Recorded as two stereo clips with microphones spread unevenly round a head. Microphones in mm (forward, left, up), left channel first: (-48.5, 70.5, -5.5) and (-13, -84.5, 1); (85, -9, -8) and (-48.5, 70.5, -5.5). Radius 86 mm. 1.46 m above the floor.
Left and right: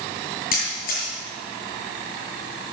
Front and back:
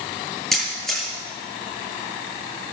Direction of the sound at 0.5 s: 55° left.